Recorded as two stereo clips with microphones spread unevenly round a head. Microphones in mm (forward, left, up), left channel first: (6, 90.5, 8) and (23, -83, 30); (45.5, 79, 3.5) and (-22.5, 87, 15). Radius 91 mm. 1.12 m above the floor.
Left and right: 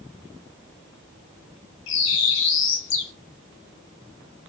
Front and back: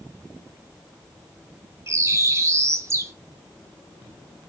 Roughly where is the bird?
Behind left.